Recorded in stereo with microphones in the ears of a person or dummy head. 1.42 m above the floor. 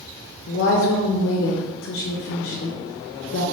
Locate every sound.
0.5 s a woman speaking: 65° left (ahead or behind), 0.5 m